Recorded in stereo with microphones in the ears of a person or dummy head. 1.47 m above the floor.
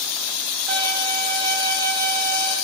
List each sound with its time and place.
0.7 s a violin: 50° right (ahead or behind), 2 m